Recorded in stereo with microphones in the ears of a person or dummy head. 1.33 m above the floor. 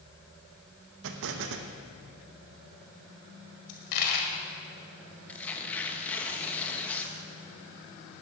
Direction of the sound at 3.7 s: 60° left (ahead or behind).